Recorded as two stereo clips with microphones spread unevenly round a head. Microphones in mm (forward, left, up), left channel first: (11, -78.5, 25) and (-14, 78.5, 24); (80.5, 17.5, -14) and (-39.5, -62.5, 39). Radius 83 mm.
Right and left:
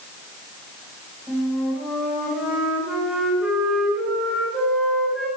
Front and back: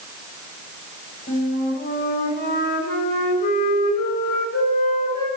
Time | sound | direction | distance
1.3 | a flute | 10° left | 4 m